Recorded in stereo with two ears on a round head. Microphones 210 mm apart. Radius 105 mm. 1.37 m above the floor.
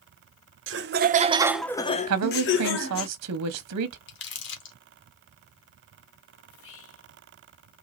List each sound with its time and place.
0.7 s laughter: 55° right (ahead or behind), 0.9 m; by 3.1 s 65° left (ahead or behind), 1.3 m
2.1 s a woman speaking: 75° right (ahead or behind), 0.7 m
4.1 s crumpling: 50° left (ahead or behind), 1.3 m
6.5 s whispering: 60° left (ahead or behind), 2.5 m